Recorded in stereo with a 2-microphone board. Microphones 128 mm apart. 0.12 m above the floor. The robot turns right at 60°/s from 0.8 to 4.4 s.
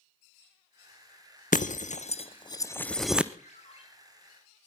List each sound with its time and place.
1.5 s breaking glass: 85° left, 0.8 m; by 3.3 s 10° right (ahead or behind), 0.8 m
3.4 s a ringtone: 75° left (ahead or behind), 4 m; by 3.8 s 45° left (ahead or behind), 4 m